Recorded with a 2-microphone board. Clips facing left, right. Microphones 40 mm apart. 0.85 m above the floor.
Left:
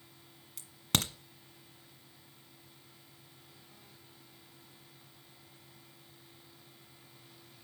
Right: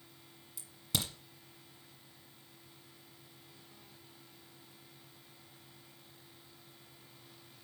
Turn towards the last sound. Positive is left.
turn(degrees=60)  # may be behind; listen again after turning